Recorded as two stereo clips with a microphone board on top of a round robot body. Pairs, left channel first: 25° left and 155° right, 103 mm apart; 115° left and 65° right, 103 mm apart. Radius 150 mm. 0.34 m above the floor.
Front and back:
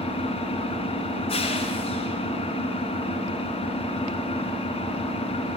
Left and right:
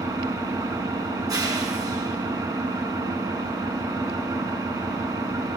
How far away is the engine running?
About 3.5 m.